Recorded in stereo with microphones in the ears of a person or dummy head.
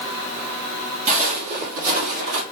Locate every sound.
1.1 s footsteps: 35° right (ahead or behind), 2 m; by 2.4 s 55° right (ahead or behind), 2 m